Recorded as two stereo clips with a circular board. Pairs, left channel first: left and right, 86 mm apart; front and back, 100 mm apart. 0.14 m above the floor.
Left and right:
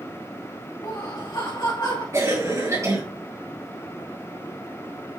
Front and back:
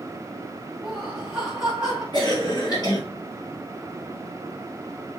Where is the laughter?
100° left, 2.5 m.